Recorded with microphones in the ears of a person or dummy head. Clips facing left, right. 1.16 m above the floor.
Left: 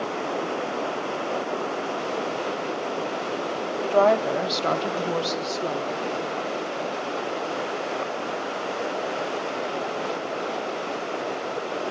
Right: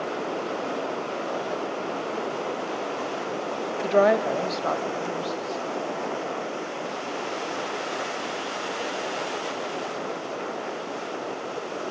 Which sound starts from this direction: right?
A woman speaking, at 3.8 s.